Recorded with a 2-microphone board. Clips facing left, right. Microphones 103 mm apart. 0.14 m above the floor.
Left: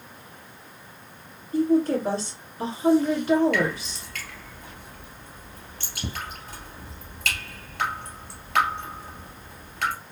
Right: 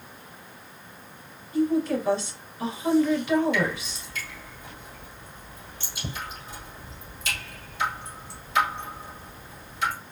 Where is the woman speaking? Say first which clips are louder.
Left 3 dB; 40° left (ahead or behind), 2.5 m.